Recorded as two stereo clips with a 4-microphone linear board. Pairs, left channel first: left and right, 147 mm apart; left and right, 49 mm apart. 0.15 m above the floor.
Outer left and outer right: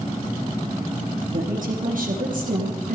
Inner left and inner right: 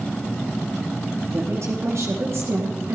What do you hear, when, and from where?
1.3 s a woman speaking: 65° right (ahead or behind), 3 m; by 3.0 s 60° right (ahead or behind), 3 m